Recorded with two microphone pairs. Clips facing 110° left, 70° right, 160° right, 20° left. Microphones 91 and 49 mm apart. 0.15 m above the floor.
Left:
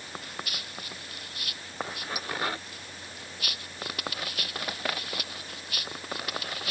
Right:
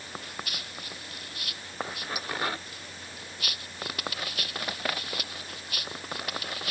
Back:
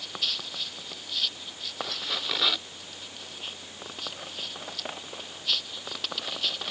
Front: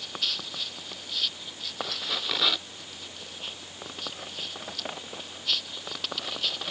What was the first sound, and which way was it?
Only background noise.